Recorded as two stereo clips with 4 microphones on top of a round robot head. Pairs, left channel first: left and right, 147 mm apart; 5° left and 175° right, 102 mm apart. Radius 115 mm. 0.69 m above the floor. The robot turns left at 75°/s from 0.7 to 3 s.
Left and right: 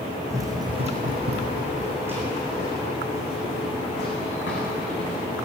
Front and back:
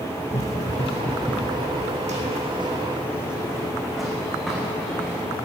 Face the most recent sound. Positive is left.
turn(degrees=85)